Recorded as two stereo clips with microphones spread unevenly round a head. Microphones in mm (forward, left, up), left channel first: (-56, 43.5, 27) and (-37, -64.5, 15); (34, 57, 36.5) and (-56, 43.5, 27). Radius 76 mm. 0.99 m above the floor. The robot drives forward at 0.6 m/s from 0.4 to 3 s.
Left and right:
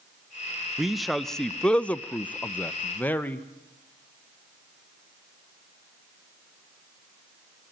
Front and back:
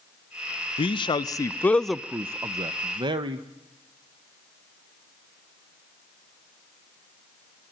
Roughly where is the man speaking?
Ahead.